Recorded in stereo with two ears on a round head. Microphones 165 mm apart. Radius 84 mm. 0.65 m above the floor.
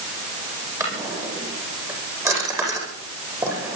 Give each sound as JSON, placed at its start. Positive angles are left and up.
{"t": 0.8, "sound": "a drawer", "side_deg": -15, "distance_m": 9.0}